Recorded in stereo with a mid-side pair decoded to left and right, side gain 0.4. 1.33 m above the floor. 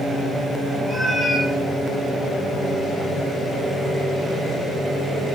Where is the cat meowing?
10° left, 1.9 m.